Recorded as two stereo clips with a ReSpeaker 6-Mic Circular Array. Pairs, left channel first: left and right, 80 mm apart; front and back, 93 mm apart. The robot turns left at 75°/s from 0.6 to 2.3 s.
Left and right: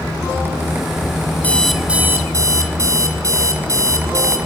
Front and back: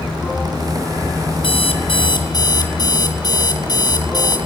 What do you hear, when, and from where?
1.4 s an alarm clock: 20° left, 2.5 m; by 4.4 s 45° right, 2.5 m